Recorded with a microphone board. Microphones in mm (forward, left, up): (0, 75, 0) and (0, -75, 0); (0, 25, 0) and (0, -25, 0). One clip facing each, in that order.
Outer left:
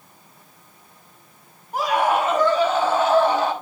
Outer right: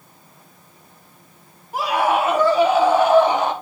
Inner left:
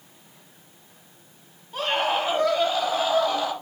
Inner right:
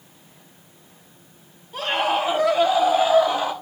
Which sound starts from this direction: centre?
A scream, at 1.7 s.